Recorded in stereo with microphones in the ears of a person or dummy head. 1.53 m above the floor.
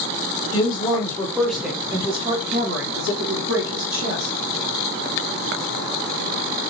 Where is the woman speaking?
30° left (ahead or behind), 1.2 m; by 4.3 s 75° right (ahead or behind), 1.6 m.